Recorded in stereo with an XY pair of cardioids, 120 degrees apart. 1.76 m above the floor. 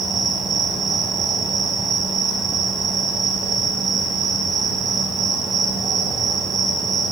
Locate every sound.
0.0 s an insect: 30° right, 2.0 m